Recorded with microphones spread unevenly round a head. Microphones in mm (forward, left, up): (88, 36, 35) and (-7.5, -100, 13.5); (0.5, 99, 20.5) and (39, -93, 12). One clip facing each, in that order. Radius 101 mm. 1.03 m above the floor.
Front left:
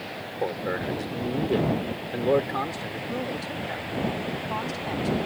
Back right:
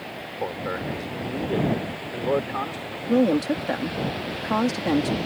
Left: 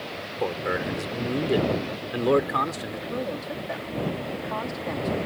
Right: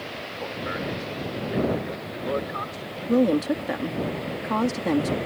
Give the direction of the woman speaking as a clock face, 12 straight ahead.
4 o'clock.